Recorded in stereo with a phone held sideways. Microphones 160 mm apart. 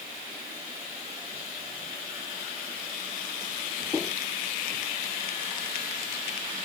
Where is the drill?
I don't hear a drill.